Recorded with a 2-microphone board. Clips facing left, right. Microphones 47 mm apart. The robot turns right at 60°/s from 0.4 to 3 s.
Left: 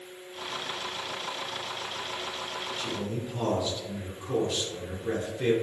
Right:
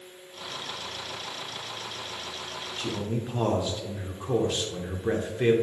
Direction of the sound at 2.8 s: 35° right (ahead or behind).